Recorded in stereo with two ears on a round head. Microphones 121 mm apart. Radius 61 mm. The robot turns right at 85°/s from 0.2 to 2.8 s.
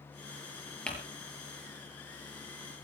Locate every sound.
0.9 s crumpling: 5° left (ahead or behind), 6 m; by 1.0 s 15° left (ahead or behind), 6 m